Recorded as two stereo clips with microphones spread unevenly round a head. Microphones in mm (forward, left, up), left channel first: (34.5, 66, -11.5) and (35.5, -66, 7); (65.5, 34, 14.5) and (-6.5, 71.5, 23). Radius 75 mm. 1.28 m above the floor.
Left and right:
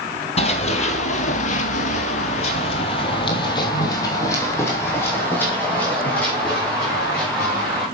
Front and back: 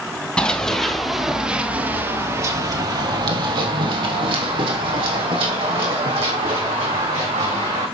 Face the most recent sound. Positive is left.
turn(degrees=180)